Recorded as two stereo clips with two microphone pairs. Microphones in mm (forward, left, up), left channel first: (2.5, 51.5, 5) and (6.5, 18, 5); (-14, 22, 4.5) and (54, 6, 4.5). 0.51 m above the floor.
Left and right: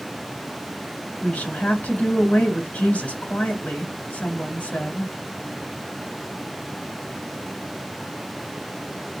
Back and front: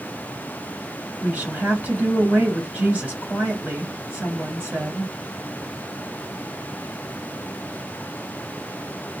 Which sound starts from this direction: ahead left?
A woman speaking, at 1.2 s.